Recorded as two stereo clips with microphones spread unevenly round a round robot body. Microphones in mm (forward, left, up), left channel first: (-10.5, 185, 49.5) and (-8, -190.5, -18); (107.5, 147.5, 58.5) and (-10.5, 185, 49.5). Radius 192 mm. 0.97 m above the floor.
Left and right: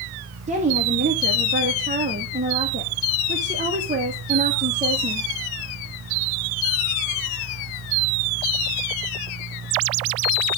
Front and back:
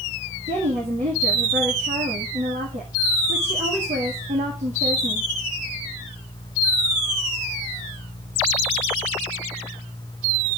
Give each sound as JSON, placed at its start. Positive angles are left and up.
{"t": 0.5, "sound": "a woman speaking", "azimuth_deg": -160, "distance_m": 1.4}